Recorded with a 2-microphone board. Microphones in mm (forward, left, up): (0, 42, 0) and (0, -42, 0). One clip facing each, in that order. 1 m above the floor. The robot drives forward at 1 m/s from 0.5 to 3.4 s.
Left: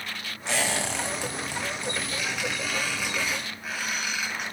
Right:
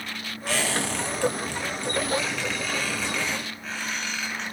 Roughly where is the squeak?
Left.